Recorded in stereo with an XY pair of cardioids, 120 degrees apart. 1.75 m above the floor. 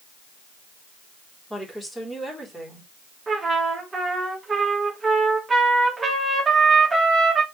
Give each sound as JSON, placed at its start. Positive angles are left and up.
{"t": 1.5, "sound": "a woman speaking", "azimuth_deg": 10, "distance_m": 4.0}
{"t": 3.3, "sound": "a trumpet", "azimuth_deg": -20, "distance_m": 2.5}